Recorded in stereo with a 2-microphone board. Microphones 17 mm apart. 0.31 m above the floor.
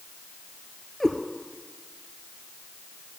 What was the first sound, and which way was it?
A cat meowing, 10° left (ahead or behind).